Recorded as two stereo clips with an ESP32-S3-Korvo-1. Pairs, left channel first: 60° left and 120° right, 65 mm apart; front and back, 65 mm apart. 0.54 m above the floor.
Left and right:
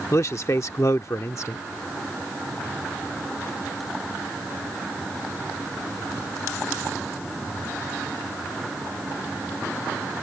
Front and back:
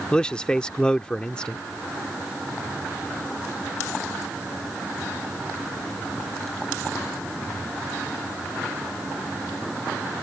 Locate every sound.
0.1 s a man speaking: 70° left